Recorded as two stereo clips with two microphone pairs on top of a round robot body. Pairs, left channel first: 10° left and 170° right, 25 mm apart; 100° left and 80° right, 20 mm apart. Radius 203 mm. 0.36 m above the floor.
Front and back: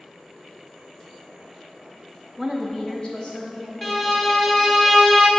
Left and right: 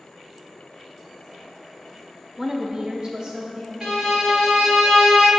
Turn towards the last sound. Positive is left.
turn(degrees=-60)